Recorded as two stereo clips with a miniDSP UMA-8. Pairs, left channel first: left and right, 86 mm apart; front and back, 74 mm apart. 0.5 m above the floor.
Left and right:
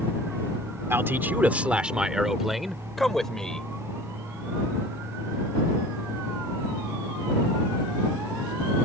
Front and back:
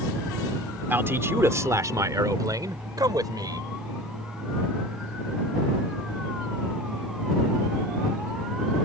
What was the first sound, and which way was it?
A man speaking, 135° right.